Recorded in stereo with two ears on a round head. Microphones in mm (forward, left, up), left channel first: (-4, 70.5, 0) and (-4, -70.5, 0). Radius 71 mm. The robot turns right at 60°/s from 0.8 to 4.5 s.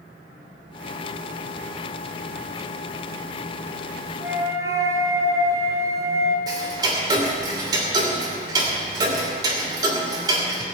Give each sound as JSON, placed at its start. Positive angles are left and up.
{"t": 4.2, "sound": "a flute", "side_deg": -5, "distance_m": 1.9}
{"t": 6.5, "sound": "ticking", "side_deg": -25, "distance_m": 2.5}